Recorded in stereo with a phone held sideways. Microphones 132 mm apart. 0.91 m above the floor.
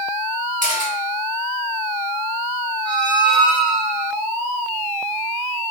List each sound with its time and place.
0.6 s a camera shutter: 80° right, 1.1 m
2.9 s a squeak: 5° left (ahead or behind), 1.5 m